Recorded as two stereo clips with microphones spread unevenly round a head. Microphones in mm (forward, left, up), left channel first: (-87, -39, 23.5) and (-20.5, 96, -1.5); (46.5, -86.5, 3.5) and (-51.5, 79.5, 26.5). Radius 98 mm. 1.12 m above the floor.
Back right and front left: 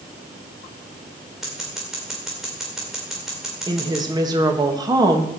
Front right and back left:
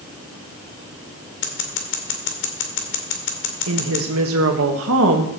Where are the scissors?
25° right, 2 m.